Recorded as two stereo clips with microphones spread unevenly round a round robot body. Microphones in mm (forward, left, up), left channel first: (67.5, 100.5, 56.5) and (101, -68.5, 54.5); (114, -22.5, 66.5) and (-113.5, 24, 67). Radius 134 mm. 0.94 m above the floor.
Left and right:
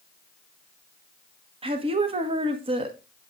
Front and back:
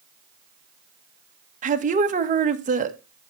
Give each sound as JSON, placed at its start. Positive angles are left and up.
{"t": 1.6, "sound": "a woman speaking", "azimuth_deg": -135, "distance_m": 1.3}